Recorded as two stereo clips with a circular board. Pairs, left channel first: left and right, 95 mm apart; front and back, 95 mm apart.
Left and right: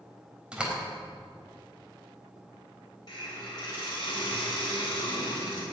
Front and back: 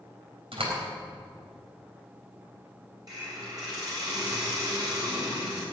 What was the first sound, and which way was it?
A door slam, 170° right.